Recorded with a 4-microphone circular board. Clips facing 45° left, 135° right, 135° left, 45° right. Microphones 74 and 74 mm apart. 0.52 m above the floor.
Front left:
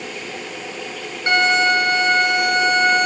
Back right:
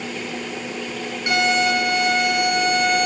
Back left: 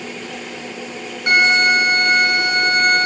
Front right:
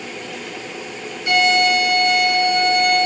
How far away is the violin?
About 2.5 m.